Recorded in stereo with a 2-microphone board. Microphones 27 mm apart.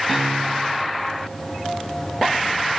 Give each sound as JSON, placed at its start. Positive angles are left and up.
{"t": 0.1, "sound": "a piano", "side_deg": 5, "distance_m": 3.5}